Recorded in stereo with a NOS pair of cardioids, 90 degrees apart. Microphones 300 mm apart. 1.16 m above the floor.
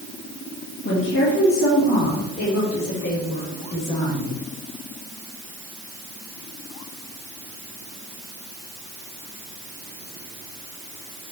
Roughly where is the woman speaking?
Ahead left.